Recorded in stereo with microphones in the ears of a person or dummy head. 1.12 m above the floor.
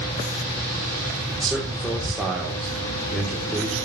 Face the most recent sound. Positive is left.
turn(degrees=5)  # may be behind; listen again after turning